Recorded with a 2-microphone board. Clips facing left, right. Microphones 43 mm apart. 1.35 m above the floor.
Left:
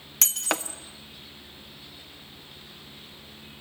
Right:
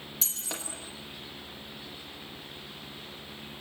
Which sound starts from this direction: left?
Breaking glass, at 0.2 s.